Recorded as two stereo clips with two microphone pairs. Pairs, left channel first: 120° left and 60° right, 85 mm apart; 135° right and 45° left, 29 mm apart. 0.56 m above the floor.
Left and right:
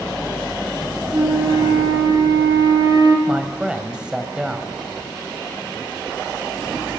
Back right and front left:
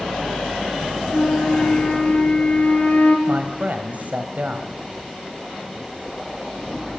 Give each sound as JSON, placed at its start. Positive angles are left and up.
{"t": 1.1, "sound": "a flute", "azimuth_deg": -105, "distance_m": 5.5}
{"t": 3.3, "sound": "a man speaking", "azimuth_deg": 20, "distance_m": 3.0}